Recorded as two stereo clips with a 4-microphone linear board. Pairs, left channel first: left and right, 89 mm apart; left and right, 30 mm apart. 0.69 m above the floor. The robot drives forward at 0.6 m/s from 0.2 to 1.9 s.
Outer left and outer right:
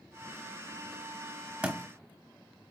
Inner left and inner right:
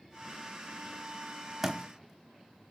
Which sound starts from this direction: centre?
A thud, at 1.6 s.